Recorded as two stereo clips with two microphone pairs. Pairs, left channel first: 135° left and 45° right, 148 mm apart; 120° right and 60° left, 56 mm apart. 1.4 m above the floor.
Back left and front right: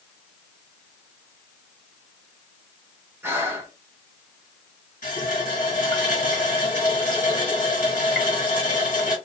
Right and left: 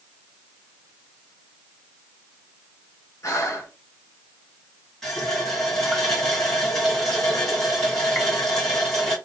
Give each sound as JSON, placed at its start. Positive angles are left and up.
{"t": 3.2, "sound": "breathing", "azimuth_deg": -115, "distance_m": 1.0}
{"t": 5.0, "sound": "a running tap", "azimuth_deg": 160, "distance_m": 1.7}